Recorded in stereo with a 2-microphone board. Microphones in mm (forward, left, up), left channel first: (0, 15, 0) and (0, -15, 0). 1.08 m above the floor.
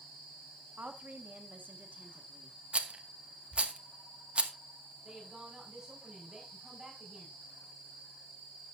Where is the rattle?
40° right (ahead or behind), 1.0 m.